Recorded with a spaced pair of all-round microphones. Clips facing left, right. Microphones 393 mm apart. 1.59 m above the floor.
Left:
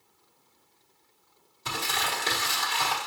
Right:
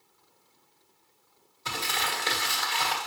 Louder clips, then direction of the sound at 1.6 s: Left 1 dB; 25° left (ahead or behind).